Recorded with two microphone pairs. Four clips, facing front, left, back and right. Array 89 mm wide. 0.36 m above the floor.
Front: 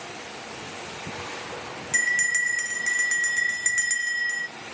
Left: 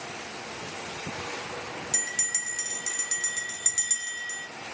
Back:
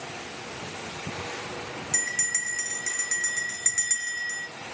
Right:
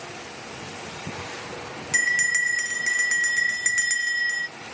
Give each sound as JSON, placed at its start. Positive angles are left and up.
{"t": 1.9, "sound": "a bell", "azimuth_deg": -70, "distance_m": 0.7}